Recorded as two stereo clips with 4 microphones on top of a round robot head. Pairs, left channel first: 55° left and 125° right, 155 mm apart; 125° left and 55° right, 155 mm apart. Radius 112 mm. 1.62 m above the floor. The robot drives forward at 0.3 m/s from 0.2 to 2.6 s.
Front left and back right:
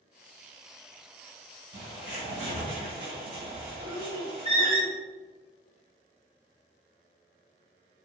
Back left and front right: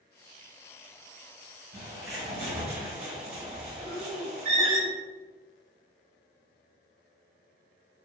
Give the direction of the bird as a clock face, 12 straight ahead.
2 o'clock.